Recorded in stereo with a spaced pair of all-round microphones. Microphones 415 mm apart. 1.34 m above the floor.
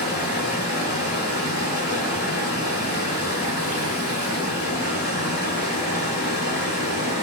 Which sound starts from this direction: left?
Running water, at 0.0 s.